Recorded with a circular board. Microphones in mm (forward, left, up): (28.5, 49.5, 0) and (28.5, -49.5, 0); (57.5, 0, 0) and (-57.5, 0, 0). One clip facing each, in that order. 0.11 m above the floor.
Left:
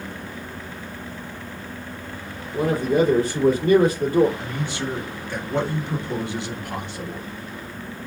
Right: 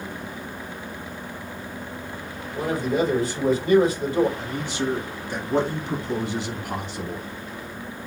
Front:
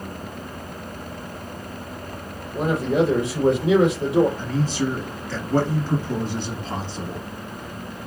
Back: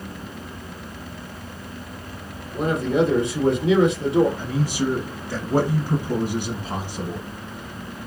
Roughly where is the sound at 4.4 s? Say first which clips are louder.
Right 1 dB, even; behind right.